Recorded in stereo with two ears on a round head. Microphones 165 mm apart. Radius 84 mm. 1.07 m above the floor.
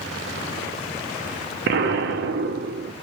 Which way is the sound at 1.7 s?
60° right (ahead or behind).